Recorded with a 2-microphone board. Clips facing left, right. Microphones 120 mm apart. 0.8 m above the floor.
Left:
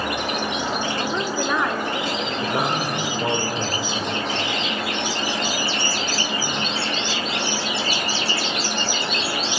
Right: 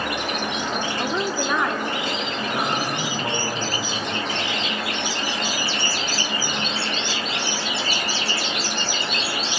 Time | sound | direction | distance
1.0 | a woman speaking | 10° right (ahead or behind) | 1.8 m
2.4 | a man speaking | 30° left (ahead or behind) | 3.5 m